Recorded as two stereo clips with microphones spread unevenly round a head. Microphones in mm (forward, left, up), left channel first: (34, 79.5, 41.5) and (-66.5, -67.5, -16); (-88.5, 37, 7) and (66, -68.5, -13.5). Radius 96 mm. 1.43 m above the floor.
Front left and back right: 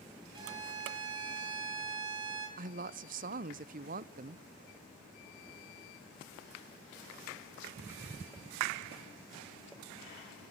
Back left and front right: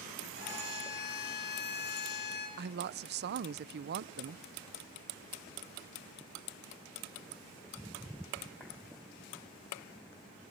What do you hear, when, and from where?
0.3 s a violin: 165° left, 6.5 m
2.6 s a woman speaking: 70° right, 0.6 m